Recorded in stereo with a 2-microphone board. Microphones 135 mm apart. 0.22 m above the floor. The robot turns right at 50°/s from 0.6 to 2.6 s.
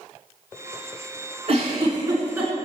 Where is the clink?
I don't hear a clink.